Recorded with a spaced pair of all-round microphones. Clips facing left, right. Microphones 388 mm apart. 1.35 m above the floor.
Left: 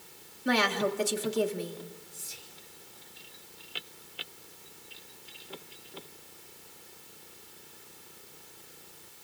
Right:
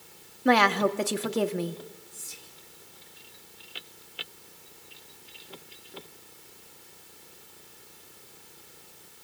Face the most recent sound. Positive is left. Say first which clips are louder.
# even
turn(degrees=-65)  # may be behind; listen again after turning